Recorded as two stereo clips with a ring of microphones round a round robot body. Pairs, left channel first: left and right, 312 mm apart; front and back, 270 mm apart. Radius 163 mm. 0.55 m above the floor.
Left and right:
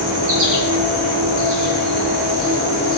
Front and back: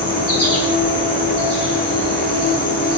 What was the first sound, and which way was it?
An insect, 70° right.